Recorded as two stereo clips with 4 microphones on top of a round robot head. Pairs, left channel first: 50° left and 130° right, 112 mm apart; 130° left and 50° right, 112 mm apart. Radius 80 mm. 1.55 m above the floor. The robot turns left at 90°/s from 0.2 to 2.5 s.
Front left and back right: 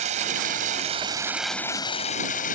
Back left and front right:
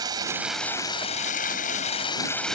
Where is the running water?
110° right; by 2.5 s 45° left.